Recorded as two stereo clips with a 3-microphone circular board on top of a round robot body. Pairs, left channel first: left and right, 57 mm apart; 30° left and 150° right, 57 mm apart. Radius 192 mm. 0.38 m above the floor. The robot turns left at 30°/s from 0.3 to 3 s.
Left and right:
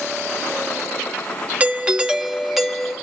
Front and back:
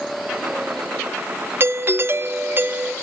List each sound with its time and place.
1.6 s a doorbell: 145° right, 1.8 m; by 2.9 s 175° left, 1.8 m